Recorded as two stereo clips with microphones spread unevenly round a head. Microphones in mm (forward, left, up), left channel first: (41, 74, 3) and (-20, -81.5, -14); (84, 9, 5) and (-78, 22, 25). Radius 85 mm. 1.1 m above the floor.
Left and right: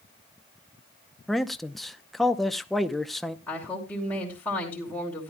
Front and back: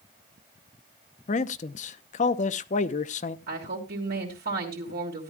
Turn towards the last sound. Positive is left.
turn(degrees=150)